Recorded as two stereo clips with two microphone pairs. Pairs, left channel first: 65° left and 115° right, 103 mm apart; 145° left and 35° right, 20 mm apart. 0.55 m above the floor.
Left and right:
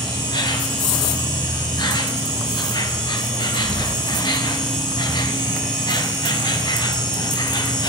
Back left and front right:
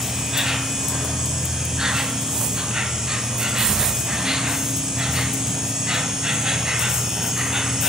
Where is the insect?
20° left, 0.9 m.